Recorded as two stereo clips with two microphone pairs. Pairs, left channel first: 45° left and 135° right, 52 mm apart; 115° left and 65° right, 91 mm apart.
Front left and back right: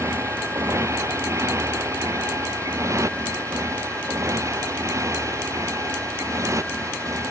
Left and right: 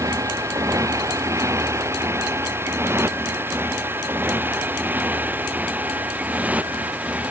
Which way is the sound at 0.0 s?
115° right.